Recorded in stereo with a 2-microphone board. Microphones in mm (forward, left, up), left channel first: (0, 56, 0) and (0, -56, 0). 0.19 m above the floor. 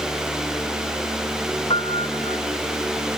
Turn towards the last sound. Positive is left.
turn(degrees=50)  # may be behind; listen again after turning